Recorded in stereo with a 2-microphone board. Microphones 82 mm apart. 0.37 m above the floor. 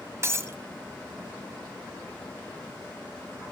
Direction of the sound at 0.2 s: 35° right (ahead or behind).